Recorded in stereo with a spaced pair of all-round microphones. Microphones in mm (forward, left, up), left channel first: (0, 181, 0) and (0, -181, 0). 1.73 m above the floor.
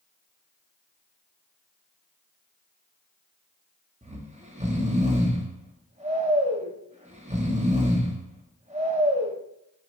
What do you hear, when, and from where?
4.0 s snoring: 20° right (ahead or behind), 0.9 m